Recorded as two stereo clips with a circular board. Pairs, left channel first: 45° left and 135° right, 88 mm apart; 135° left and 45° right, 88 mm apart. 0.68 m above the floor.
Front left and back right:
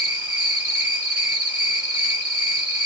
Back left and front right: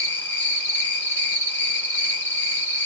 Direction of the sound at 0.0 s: 175° left.